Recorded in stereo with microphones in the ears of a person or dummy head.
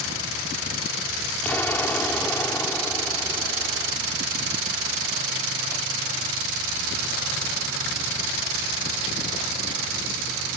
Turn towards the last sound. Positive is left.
turn(degrees=15)  # may be behind; listen again after turning